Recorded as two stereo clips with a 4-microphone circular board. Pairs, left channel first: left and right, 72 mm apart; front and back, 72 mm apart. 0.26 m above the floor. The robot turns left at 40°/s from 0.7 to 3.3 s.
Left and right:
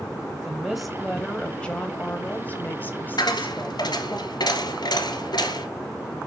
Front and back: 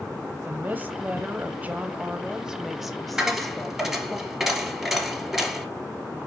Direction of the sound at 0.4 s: 175° right.